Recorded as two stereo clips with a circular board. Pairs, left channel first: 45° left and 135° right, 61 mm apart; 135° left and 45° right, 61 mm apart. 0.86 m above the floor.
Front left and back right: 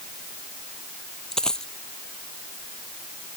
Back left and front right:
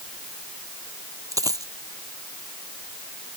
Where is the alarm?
No alarm in this recording.